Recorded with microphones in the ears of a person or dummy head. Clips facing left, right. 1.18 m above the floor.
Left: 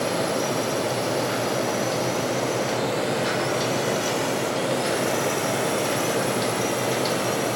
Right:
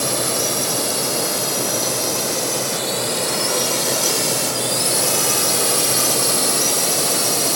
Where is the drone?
80° right.